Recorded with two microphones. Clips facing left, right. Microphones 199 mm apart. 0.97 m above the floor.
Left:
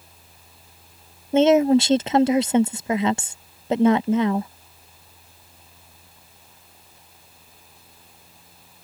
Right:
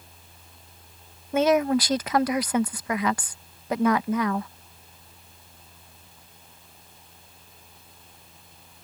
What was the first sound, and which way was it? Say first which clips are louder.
A woman speaking: left 6 dB; 25° left (ahead or behind).